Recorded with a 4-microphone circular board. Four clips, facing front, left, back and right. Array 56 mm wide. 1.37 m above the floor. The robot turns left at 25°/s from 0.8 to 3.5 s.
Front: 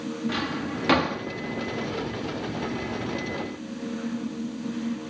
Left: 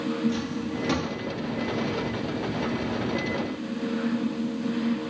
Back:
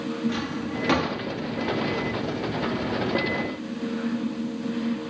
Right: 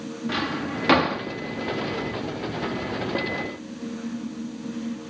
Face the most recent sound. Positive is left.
turn(degrees=-140)